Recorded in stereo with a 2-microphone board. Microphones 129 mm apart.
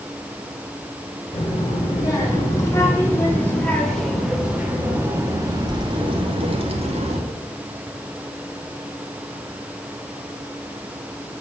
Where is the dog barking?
No dog barking in this recording.